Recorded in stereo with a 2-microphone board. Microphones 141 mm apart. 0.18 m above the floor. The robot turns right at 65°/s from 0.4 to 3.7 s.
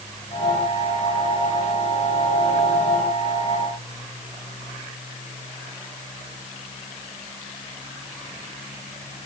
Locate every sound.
Only background noise.